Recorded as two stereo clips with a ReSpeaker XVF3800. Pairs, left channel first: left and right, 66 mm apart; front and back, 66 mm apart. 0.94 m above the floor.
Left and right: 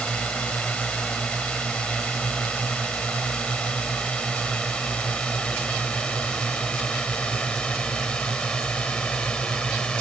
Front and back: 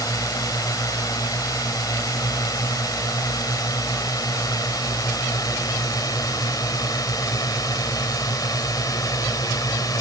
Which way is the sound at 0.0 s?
15° left.